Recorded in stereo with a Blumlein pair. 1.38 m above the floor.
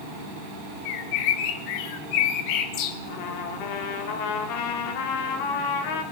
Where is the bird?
45° left, 1.7 m.